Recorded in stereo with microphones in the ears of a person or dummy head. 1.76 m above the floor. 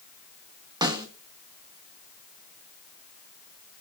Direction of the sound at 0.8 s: 25° right (ahead or behind).